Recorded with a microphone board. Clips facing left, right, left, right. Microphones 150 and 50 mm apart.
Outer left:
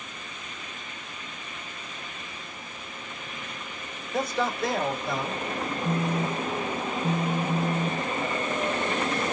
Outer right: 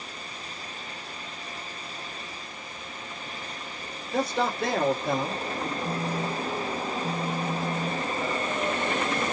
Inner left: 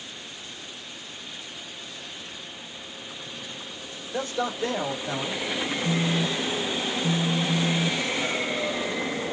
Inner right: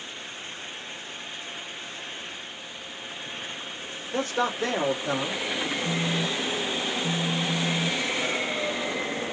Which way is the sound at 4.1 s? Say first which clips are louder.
Outer right 1 dB, inner right 2 dB; 70° right (ahead or behind).